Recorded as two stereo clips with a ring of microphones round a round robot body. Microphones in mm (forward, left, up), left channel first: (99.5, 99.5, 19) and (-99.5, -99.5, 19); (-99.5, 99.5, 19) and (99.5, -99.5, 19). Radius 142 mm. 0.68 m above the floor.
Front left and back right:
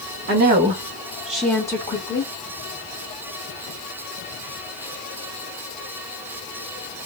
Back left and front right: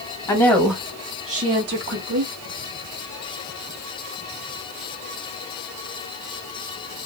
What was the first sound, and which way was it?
A woman speaking, 160° right.